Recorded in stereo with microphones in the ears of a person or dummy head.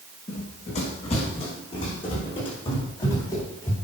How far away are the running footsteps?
About 6 m.